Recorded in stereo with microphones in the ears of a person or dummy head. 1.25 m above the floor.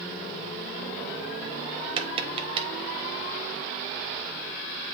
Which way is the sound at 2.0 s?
25° right (ahead or behind).